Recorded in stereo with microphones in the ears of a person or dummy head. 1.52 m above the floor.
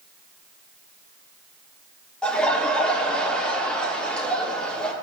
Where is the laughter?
5° left (ahead or behind), 2.5 m.